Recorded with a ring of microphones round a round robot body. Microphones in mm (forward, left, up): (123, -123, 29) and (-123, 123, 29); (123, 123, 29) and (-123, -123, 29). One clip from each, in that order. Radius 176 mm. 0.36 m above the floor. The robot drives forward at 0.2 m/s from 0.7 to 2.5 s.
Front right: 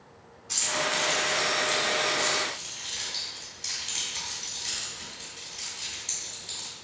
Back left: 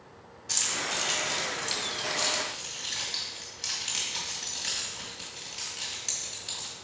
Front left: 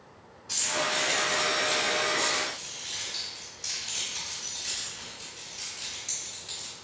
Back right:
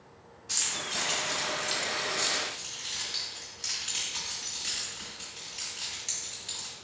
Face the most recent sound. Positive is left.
turn(degrees=155)